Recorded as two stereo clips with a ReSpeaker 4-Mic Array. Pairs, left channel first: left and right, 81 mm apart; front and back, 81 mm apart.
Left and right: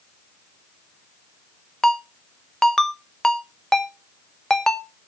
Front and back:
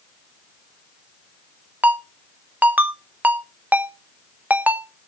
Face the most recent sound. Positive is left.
turn(degrees=165)